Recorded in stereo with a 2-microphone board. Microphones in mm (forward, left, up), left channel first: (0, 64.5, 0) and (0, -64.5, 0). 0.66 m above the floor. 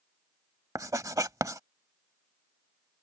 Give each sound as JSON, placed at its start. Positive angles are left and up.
{"t": 0.8, "sound": "writing", "side_deg": -25}